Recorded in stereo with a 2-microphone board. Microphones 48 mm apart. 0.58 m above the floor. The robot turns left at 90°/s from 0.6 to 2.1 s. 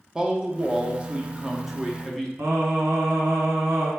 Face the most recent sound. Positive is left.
turn(degrees=-70)  # may be behind; listen again after turning